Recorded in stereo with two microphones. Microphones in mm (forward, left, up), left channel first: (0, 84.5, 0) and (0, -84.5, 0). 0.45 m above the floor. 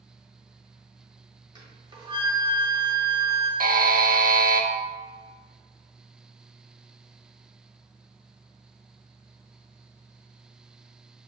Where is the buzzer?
60° right (ahead or behind), 0.5 m.